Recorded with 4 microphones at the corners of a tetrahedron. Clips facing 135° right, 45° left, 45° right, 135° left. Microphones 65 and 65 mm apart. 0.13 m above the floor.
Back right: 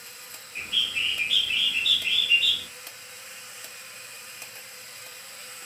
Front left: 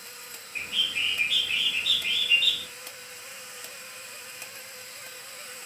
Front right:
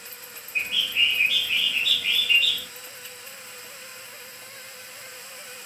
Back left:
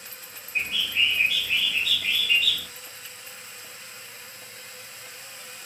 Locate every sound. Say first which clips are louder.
0.6 s a bird: back right 1 dB, even; 80° left, 1.9 m